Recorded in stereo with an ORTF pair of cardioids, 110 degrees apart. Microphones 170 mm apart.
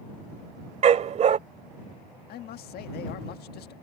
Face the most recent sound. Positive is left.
turn(degrees=70)